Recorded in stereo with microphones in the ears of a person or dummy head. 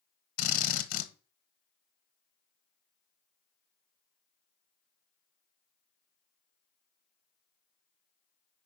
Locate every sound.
0.4 s a drill: 50° left (ahead or behind), 1.3 m